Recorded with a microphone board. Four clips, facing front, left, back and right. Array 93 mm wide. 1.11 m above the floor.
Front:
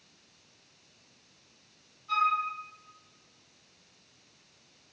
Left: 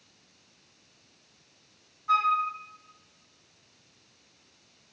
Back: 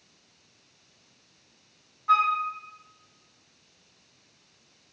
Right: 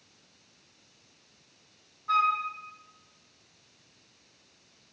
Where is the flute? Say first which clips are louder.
Left 1 dB, back 5 dB; 175° left, 1.0 m.